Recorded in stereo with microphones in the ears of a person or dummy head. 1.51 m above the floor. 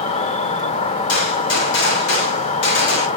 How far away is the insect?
About 1.0 m.